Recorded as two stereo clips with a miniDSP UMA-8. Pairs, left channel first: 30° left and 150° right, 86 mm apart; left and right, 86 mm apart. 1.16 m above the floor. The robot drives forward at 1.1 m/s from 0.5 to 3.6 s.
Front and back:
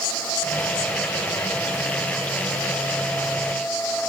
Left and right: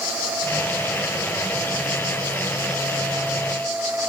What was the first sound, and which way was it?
Only background noise.